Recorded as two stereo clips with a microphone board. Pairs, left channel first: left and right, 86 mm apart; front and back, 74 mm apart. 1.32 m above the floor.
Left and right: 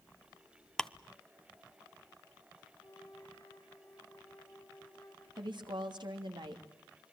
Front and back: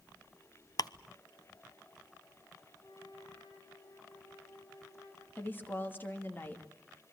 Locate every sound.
0.8 s ticking: 5° left, 0.7 m
2.8 s a flute: 40° left, 5 m
5.4 s a woman speaking: 60° right, 2.5 m